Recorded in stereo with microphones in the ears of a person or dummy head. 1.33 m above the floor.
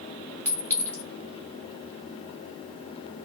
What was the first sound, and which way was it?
A clink, 10° left (ahead or behind).